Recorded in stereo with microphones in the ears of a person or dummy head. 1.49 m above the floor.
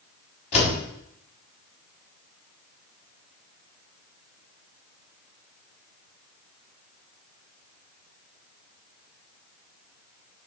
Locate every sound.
0.5 s a door slam: 40° left (ahead or behind), 7 m